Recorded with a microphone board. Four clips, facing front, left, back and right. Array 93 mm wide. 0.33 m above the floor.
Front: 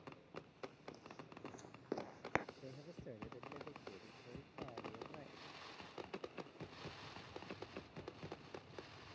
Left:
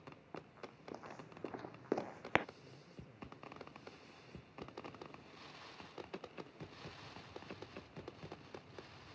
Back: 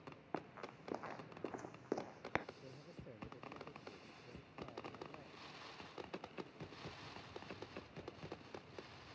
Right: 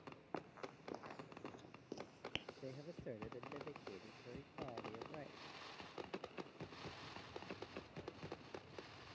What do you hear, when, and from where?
0.3 s running footsteps: 160° right; by 2.5 s 80° left
2.6 s a man speaking: 75° right